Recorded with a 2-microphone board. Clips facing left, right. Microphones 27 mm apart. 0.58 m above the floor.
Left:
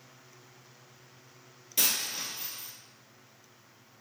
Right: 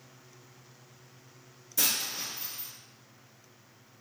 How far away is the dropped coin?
About 0.9 m.